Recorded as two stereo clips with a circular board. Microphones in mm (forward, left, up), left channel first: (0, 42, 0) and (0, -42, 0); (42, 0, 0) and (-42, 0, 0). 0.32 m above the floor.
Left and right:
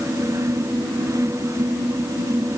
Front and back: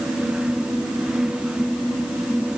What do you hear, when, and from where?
Only background noise.